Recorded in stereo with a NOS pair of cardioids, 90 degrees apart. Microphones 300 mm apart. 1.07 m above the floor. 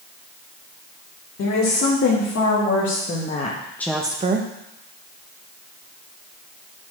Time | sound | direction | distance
1.4 | a woman speaking | 55° left | 2.5 m